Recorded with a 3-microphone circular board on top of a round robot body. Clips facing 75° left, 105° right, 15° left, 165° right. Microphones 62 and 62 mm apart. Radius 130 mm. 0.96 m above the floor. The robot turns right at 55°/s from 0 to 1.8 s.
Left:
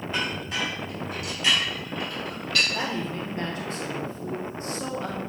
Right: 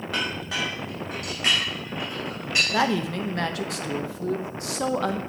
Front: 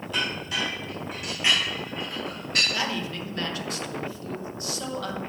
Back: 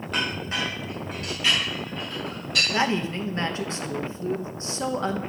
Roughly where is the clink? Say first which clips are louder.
Right 1 dB, back 1 dB; behind right.